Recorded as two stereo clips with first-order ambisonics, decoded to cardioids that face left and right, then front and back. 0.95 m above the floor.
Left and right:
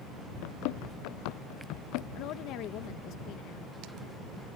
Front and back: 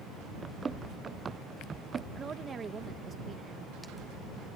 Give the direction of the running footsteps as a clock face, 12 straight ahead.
9 o'clock.